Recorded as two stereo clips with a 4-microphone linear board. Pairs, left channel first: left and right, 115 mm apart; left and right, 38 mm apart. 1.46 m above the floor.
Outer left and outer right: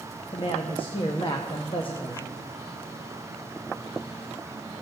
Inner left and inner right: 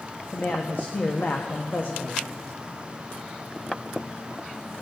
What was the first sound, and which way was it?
A man speaking, 50° left (ahead or behind).